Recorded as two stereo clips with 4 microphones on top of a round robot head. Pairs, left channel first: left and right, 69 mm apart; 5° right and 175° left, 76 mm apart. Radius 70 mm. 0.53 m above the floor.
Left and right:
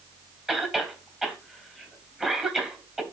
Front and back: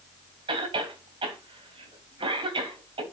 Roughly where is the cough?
Behind.